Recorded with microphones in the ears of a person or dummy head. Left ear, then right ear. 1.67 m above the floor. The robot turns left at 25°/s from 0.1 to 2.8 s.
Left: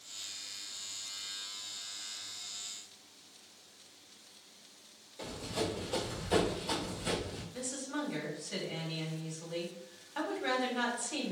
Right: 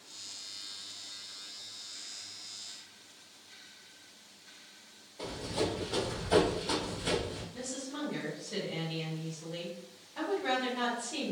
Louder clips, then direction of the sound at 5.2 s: Right 3 dB; 30° left (ahead or behind).